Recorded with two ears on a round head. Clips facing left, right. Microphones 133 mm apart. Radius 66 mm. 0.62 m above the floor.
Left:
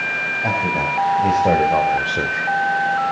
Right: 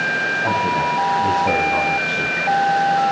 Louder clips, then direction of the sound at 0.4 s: Right 2 dB; 30° left (ahead or behind).